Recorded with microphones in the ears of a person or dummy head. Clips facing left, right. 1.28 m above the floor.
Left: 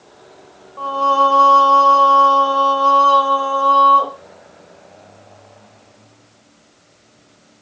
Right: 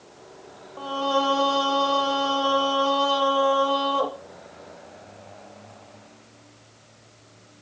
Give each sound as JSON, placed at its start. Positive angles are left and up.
{"t": 0.8, "sound": "singing", "side_deg": -10, "distance_m": 0.8}